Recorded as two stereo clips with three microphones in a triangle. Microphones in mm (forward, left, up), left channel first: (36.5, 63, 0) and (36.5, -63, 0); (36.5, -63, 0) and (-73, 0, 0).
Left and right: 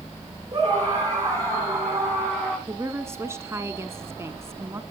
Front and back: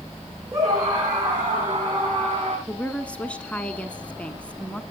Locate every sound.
0.5 s a scream: 150° right, 8 m; by 2.6 s 160° right, 8 m
2.7 s a woman speaking: 90° right, 1.2 m